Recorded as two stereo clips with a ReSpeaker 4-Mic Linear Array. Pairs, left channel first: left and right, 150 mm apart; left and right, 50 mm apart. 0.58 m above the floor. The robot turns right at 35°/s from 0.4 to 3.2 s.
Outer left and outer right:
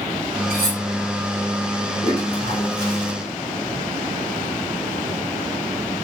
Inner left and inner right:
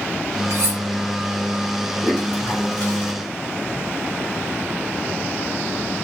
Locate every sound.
0.5 s cutlery clinking: 85° right, 1.9 m; by 0.8 s 80° right, 1.9 m
2.0 s a toilet flushing: 55° left, 1.5 m; by 3.1 s 95° left, 1.5 m